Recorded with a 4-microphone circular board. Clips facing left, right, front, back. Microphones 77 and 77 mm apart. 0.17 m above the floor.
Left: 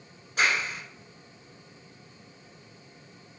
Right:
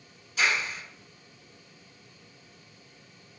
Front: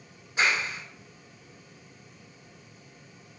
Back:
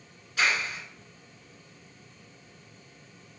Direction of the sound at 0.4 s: 60° left.